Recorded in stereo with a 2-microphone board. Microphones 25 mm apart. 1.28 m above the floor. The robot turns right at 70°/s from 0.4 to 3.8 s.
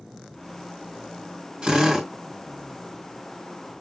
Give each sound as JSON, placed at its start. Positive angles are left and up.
{"t": 1.6, "sound": "a drill", "azimuth_deg": -35, "distance_m": 2.5}